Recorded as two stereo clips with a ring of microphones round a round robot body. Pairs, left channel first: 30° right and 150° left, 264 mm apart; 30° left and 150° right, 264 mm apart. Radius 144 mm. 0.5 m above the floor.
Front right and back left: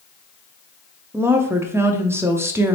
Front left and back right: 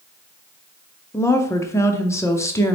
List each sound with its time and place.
1.1 s a woman speaking: 90° left, 0.6 m